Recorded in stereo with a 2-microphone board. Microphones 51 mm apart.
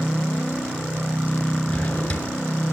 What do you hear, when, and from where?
1.7 s a drawer: 25° left (ahead or behind), 3.5 m